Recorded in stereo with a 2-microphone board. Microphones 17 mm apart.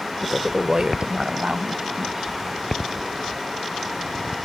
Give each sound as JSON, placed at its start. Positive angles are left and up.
{"t": 0.2, "sound": "a woman speaking", "side_deg": 15}